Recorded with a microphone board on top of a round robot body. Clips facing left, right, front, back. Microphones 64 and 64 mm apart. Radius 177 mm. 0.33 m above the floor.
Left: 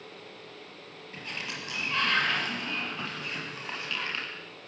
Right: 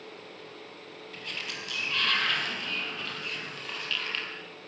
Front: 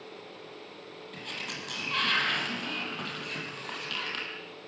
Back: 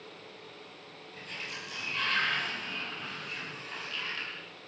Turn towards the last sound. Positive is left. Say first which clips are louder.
# left 1 dB, front 2 dB
turn(degrees=25)